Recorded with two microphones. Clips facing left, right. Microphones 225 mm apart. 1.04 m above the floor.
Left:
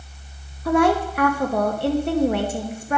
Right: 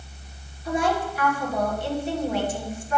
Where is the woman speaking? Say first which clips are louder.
Left 7 dB; 65° left (ahead or behind), 1.0 m.